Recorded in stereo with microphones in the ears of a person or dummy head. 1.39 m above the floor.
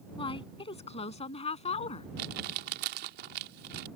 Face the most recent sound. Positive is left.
turn(degrees=-55)  # may be behind; listen again after turning